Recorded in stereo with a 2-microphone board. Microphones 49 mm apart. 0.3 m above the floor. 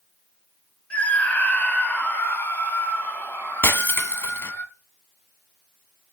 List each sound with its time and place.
0.9 s a scream: 30° left (ahead or behind), 1.4 m; by 4.6 s 40° left (ahead or behind), 4.5 m
3.6 s breaking glass: 60° left (ahead or behind), 0.7 m